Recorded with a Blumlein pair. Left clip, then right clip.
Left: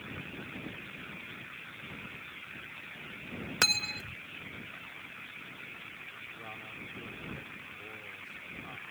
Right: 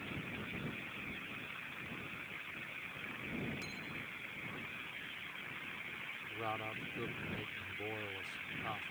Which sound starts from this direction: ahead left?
Cutlery clinking, at 3.6 s.